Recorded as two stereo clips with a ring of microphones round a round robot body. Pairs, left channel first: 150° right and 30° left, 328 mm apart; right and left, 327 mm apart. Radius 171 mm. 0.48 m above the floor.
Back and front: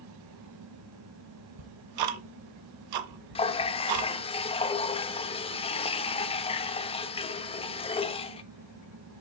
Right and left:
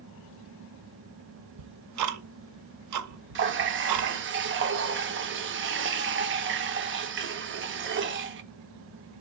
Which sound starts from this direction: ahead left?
Ticking, at 1.6 s.